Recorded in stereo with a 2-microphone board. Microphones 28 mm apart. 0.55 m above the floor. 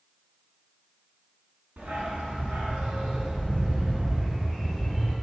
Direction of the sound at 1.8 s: 65° right (ahead or behind).